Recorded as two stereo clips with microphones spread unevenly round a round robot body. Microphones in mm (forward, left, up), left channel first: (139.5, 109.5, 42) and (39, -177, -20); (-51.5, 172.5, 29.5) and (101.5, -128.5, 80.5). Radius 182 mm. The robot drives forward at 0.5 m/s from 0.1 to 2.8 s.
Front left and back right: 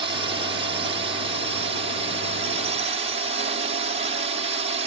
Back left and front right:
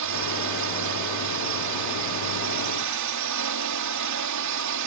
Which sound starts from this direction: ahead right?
A drone, at 0.0 s.